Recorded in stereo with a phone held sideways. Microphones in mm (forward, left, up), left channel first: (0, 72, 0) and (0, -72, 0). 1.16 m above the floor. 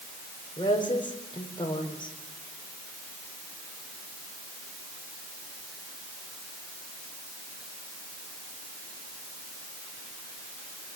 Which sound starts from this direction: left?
A woman speaking, at 0.6 s.